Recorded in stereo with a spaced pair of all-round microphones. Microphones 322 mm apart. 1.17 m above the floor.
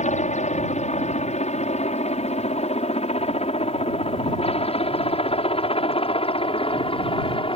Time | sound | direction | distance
0.0 | a helicopter | 20° left (ahead or behind) | ?